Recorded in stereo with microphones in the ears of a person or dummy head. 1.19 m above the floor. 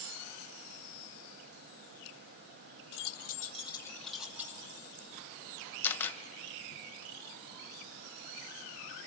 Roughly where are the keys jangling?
Left.